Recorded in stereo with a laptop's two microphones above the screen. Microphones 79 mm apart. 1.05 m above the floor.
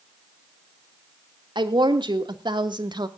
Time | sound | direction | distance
1.6 | a woman speaking | 85° right | 2.5 m